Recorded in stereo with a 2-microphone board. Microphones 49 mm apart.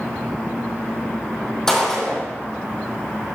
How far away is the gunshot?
About 2.5 m.